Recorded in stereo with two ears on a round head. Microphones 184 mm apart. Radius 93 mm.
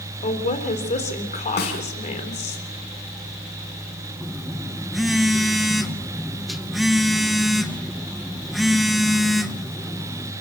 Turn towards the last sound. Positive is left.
turn(degrees=0)  # may be behind; listen again after turning